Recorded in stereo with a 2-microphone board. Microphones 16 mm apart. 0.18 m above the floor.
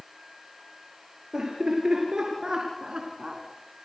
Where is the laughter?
65° right (ahead or behind), 4 m; by 3.4 s 40° right (ahead or behind), 1.9 m.